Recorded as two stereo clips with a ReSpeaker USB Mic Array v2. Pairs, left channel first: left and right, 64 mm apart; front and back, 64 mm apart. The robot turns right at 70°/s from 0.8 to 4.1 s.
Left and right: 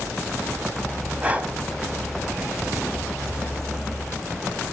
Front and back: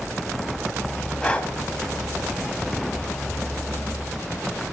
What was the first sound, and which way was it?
Breathing, 65° right.